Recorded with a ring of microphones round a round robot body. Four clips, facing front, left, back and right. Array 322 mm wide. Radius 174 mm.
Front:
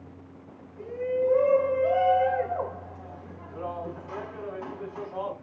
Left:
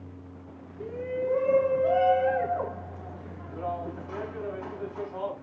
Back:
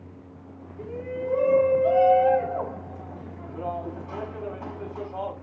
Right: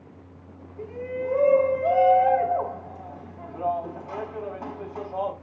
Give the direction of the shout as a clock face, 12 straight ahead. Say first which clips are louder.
Even, front 5 dB; 3 o'clock.